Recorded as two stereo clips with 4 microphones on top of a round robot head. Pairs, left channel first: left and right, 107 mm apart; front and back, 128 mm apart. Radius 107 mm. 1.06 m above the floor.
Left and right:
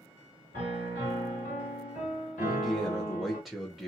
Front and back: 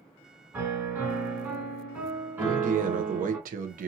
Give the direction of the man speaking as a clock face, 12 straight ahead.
6 o'clock.